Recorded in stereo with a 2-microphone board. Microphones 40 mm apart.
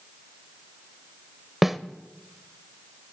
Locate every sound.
1.6 s a snare drum: 5° right (ahead or behind), 0.6 m